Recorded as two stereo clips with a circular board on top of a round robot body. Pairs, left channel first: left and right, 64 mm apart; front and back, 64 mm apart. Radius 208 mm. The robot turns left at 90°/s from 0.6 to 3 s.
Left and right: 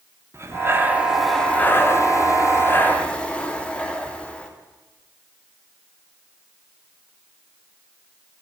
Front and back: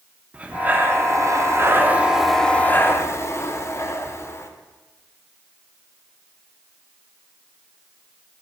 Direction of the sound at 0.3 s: 120° right.